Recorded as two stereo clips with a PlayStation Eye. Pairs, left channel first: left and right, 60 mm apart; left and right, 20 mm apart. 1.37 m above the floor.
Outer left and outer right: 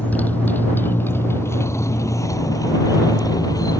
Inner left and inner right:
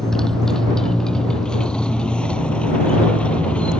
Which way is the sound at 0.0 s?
25° left (ahead or behind).